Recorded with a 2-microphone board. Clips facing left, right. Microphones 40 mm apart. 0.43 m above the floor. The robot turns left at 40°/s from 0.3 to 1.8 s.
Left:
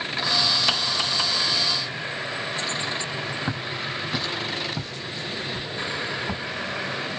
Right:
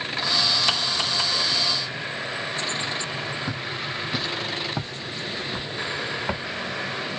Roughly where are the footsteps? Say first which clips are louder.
Left 1 dB; left.